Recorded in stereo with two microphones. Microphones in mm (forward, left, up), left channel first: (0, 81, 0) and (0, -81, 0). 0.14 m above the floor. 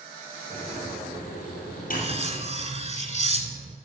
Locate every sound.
0.5 s a microwave: 60° left (ahead or behind), 3.5 m
1.9 s cutlery clinking: 45° right (ahead or behind), 0.8 m